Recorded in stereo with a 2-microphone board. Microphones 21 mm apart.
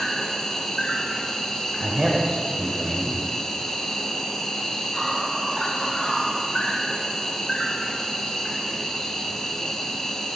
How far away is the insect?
About 2 m.